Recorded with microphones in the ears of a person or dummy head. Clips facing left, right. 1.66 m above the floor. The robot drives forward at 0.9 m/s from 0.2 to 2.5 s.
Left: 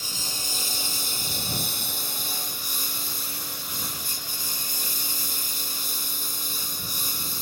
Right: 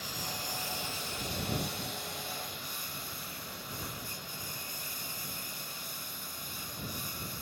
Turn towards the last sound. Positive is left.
turn(degrees=65)  # may be behind; listen again after turning